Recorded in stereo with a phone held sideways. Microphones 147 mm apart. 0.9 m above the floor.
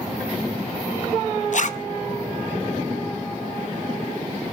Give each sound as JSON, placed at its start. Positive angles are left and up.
{"t": 1.5, "sound": "a zipper", "side_deg": 60, "distance_m": 0.8}